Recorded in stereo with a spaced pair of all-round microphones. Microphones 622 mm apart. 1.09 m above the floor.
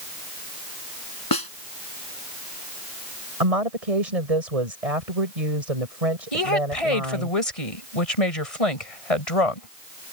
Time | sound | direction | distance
1.3 | a snare drum | 35° left (ahead or behind) | ?
3.4 | a woman speaking | 80° right | ?
6.3 | a woman speaking | 65° left (ahead or behind) | ?